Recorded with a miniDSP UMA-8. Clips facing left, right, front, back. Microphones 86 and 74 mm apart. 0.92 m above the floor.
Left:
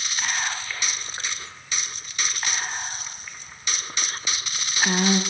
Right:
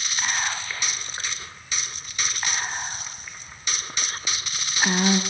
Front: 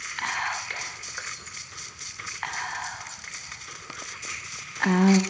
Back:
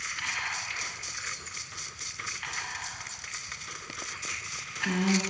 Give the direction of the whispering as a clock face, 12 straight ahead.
12 o'clock.